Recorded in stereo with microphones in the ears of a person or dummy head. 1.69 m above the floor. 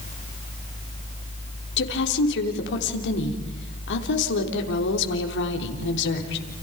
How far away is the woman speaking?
About 4 m.